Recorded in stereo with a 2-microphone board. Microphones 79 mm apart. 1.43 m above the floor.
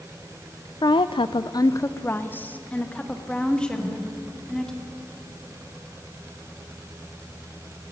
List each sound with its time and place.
0.8 s a woman speaking: 60° left (ahead or behind), 0.6 m; by 4.7 s 5° left (ahead or behind), 3.5 m
3.7 s a whoosh: 20° left (ahead or behind), 7 m